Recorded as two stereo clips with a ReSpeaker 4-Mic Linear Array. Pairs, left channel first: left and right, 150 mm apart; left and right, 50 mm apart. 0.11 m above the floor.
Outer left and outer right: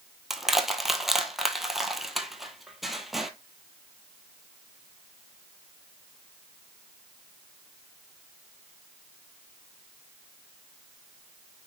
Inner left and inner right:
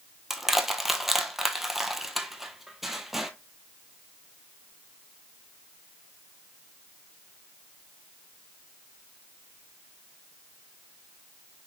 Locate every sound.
0.3 s crushing: centre (ahead or behind), 1.2 m